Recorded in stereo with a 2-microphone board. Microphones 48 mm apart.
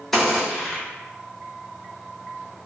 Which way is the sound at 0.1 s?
5° left (ahead or behind).